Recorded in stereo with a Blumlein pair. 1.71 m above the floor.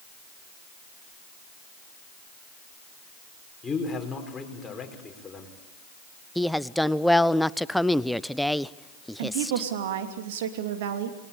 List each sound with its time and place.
3.6 s a man speaking: 15° left, 5 m
6.3 s a woman speaking: straight ahead, 0.6 m
9.2 s a woman speaking: 55° right, 3 m